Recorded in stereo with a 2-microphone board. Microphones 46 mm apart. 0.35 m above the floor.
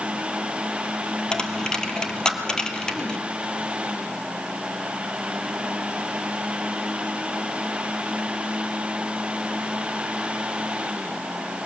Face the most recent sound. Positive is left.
turn(degrees=15)  # may be behind; listen again after turning